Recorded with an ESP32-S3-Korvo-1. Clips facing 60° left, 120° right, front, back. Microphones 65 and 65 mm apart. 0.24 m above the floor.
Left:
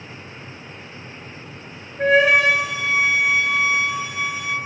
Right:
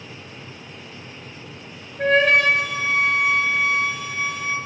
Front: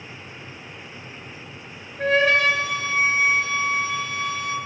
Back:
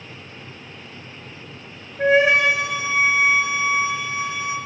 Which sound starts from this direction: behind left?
A flute, at 2.0 s.